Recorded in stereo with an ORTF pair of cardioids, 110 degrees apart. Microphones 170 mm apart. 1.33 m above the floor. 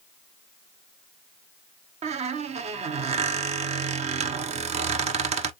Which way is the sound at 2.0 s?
40° right.